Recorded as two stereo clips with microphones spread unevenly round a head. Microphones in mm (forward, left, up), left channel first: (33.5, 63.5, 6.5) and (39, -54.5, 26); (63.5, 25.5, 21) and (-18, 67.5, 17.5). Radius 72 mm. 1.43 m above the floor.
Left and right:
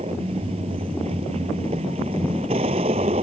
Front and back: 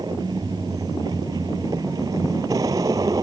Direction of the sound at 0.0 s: 140° right.